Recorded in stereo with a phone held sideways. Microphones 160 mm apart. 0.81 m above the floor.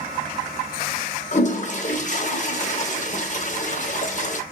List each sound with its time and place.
1.3 s a toilet flushing: 50° left (ahead or behind), 0.6 m